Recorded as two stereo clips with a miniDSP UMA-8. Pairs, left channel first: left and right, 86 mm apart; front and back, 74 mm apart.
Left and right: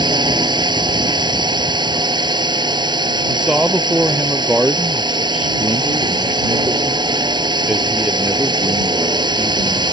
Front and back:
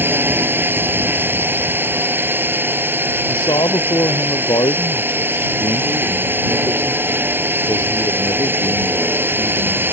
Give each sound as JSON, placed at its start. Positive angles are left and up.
{"t": 0.0, "sound": "a drone", "azimuth_deg": -120}
{"t": 3.3, "sound": "a man speaking", "azimuth_deg": -10}